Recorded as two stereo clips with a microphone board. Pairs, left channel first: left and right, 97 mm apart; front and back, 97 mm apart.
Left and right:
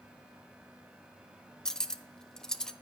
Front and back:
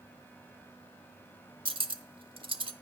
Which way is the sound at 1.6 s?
170° left.